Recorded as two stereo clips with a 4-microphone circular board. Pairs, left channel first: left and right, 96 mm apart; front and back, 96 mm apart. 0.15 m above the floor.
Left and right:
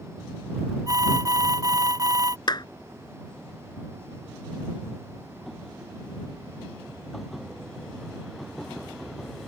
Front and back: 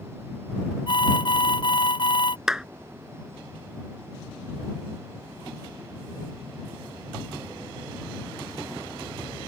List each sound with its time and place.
0.9 s an alarm: 35° right
2.5 s a clap: 100° left